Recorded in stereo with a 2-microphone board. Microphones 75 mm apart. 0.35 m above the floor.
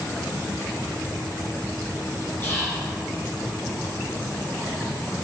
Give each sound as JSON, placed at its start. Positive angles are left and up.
{"t": 2.4, "sound": "whispering", "side_deg": 35, "distance_m": 1.3}